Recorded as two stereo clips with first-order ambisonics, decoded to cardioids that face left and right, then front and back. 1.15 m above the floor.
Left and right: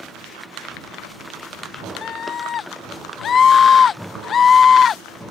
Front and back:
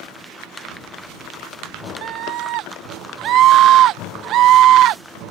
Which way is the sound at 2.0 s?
150° left.